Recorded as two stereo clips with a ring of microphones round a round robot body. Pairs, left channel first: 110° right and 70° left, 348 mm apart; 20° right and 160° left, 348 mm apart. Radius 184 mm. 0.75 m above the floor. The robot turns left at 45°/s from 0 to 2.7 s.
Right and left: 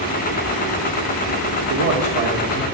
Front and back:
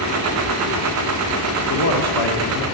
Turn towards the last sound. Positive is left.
turn(degrees=-20)